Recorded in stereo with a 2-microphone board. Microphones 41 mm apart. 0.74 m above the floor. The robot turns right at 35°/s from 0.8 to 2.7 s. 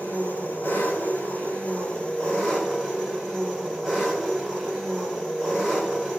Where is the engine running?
95° left, 3.5 m; by 6.2 s 165° left, 3.5 m.